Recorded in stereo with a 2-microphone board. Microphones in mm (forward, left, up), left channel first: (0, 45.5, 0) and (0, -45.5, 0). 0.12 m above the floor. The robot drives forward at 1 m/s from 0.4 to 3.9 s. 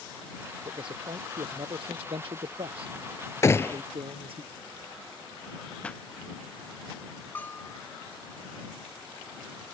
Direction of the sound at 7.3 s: 20° left (ahead or behind).